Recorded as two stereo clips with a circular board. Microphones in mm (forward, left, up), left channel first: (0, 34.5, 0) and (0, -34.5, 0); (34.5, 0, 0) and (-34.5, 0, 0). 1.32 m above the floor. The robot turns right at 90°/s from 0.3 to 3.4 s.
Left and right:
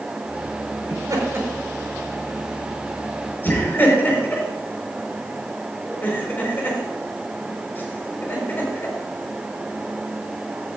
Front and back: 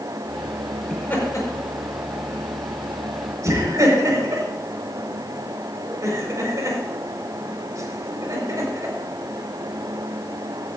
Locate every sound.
0.9 s laughter: 80° right, 5 m; by 8.9 s 145° left, 5 m